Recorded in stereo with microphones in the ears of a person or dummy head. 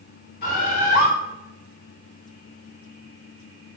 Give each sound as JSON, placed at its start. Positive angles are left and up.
{"t": 0.4, "sound": "a bird", "side_deg": 55, "distance_m": 1.4}